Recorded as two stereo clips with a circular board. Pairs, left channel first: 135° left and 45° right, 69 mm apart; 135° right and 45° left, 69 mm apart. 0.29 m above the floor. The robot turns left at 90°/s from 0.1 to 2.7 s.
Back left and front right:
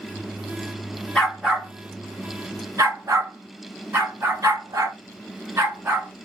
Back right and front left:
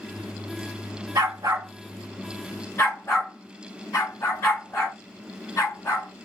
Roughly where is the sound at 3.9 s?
Right.